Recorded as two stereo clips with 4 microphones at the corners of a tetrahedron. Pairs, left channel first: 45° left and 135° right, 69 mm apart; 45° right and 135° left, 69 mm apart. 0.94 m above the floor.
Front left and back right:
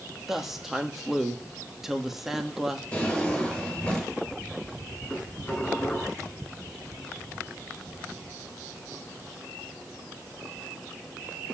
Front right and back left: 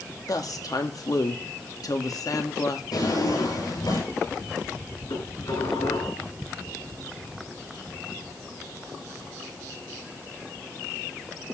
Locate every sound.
0.3 s a woman speaking: 50° right, 2 m
2.9 s a drawer: 30° right, 6.5 m
5.1 s dishes clattering: 30° right, 7.5 m